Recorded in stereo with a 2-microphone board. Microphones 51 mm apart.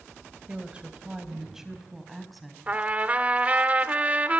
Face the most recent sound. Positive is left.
turn(degrees=-30)  # may be behind; listen again after turning